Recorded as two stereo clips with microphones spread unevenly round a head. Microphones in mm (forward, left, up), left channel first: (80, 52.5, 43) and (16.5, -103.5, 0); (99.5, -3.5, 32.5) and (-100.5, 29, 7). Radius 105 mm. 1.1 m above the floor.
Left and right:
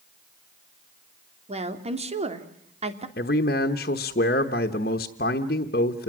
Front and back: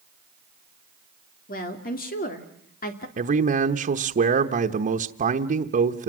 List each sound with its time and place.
1.5 s a woman speaking: 60° right, 3 m
3.2 s a man speaking: 120° left, 1.1 m